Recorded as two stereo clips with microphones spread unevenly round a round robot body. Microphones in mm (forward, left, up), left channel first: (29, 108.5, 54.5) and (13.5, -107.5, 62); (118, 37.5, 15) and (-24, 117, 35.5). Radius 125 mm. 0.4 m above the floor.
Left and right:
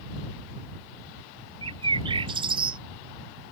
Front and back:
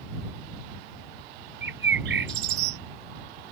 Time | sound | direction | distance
1.6 | a bird | 165° right | ?